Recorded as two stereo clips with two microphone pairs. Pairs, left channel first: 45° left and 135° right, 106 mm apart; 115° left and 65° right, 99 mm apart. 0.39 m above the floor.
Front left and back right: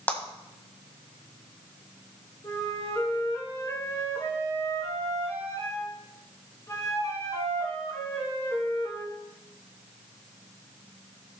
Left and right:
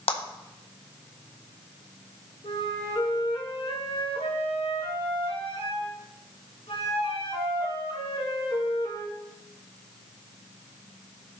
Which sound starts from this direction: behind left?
A clap, at 0.1 s.